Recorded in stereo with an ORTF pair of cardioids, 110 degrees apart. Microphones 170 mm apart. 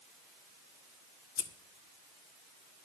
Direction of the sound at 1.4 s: 60° left.